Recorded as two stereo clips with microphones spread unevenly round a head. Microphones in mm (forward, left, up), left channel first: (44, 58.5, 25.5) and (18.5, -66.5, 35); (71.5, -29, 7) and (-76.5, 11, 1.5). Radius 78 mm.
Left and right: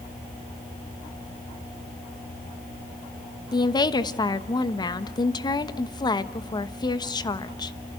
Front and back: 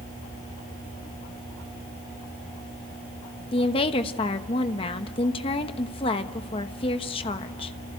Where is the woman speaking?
35° left, 1.2 m.